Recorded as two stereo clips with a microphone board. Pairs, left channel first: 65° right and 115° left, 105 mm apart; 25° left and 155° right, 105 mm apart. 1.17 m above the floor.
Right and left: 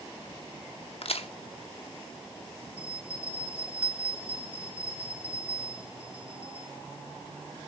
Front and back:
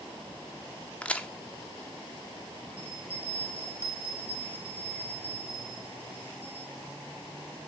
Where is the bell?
175° right, 1.6 m.